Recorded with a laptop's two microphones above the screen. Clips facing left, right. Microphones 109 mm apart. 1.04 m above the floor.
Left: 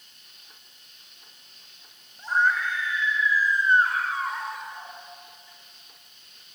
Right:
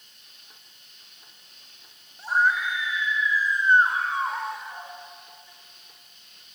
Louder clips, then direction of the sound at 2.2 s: Right 1 dB; 10° right (ahead or behind).